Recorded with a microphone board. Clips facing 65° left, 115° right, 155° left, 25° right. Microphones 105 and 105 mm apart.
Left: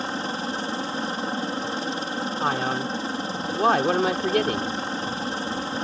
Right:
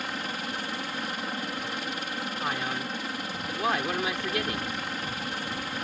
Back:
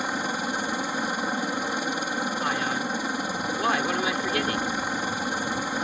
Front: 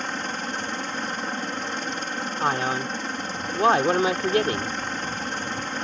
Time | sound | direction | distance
0.0 | a helicopter | 85° left | ?
2.4 | a man speaking | 25° left | ?